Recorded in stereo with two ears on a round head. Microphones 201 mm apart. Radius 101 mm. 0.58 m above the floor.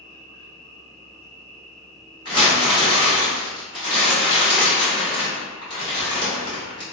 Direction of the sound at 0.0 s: 60° right (ahead or behind).